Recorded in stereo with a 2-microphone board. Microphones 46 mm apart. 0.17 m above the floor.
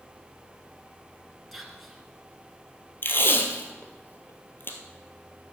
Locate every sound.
1.5 s whispering: centre (ahead or behind), 2.5 m
3.0 s tape being pulled: 55° left (ahead or behind), 1.6 m